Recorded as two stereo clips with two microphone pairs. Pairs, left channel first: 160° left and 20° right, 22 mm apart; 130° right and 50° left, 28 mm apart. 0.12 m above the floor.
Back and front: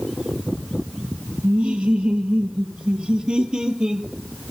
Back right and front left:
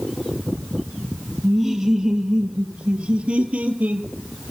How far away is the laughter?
About 2.5 m.